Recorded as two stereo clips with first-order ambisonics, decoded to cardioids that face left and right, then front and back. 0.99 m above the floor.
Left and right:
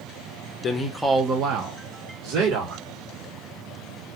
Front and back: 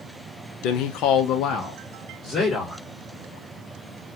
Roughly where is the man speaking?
Ahead left.